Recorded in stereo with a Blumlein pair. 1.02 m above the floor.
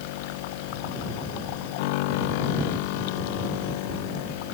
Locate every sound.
0.0 s a machine running: 50° left